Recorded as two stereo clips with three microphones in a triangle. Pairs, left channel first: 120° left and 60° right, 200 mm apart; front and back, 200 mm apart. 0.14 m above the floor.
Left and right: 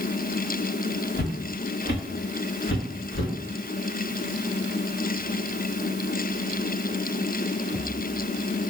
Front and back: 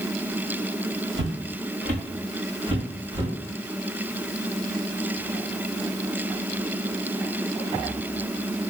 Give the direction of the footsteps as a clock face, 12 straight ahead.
7 o'clock.